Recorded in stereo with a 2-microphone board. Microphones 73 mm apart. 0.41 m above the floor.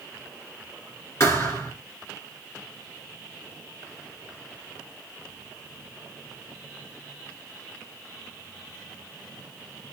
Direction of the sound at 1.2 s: 40° left (ahead or behind).